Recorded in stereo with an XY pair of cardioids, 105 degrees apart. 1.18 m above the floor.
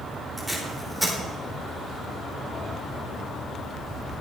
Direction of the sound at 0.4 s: 10° right.